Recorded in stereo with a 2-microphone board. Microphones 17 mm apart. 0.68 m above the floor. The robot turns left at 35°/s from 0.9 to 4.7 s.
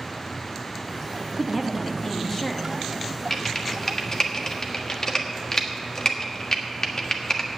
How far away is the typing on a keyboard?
About 1.4 m.